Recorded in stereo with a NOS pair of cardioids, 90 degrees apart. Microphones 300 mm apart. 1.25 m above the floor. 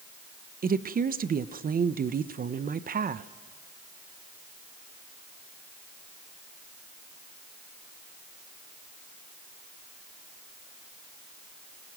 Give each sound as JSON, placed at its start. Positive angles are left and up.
{"t": 0.6, "sound": "a woman speaking", "azimuth_deg": -30, "distance_m": 0.7}